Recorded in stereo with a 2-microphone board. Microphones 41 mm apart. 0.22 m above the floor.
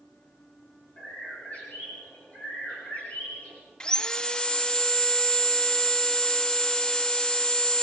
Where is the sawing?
20° left (ahead or behind), 0.7 m.